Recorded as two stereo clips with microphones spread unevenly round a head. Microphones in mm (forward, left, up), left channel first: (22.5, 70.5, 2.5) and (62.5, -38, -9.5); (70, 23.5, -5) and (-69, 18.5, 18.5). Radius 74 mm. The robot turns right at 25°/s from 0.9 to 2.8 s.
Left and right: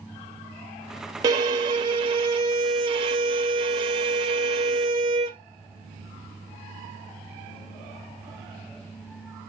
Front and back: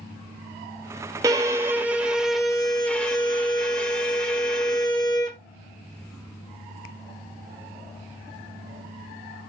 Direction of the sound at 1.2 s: 110° right.